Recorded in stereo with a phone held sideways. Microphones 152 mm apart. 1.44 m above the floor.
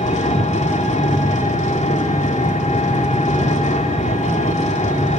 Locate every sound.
0.0 s an engine running: 50° left (ahead or behind), 3 m